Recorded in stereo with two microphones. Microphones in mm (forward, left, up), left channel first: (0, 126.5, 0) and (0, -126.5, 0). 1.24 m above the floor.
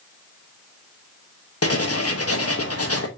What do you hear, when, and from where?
1.6 s writing: 75° left (ahead or behind), 1.2 m